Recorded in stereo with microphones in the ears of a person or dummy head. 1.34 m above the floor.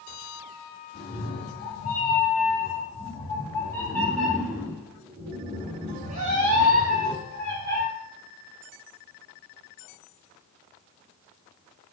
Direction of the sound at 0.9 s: 60° left (ahead or behind).